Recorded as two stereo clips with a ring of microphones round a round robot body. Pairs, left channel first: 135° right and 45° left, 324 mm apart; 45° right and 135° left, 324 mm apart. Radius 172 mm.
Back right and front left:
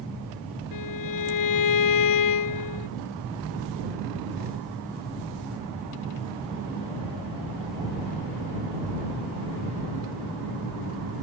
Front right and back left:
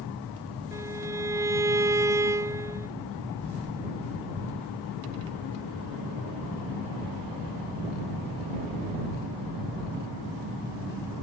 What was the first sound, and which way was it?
A violin, 145° right.